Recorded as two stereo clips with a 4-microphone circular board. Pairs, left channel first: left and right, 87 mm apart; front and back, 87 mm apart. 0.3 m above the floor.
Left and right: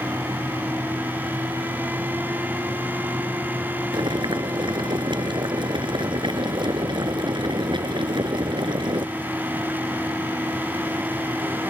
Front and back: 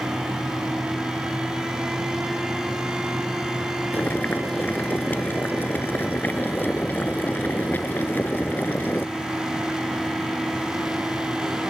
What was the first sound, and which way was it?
Boiling, 70° right.